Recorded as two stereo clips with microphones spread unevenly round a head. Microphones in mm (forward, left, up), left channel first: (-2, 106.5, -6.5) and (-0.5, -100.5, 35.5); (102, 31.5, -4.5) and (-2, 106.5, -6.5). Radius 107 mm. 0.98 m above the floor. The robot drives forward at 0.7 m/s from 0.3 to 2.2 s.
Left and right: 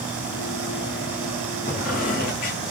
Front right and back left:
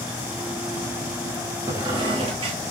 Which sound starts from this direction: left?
A squeak, at 1.7 s.